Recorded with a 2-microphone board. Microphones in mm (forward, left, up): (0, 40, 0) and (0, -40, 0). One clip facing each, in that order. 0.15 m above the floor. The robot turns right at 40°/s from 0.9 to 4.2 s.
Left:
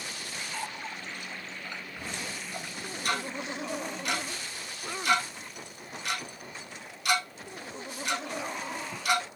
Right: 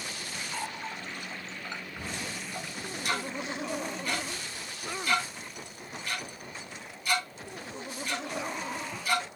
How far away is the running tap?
About 1.5 m.